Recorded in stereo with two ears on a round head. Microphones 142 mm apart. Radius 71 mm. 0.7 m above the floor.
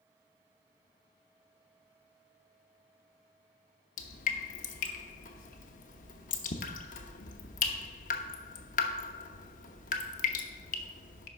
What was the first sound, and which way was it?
Dripping, 50° left (ahead or behind).